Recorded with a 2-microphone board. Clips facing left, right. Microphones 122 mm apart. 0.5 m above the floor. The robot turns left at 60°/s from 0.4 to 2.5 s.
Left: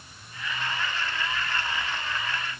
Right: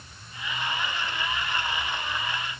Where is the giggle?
No giggle in this recording.